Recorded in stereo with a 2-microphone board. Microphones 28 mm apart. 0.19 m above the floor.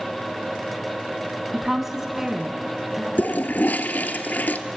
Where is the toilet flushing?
75° left (ahead or behind), 1.0 m.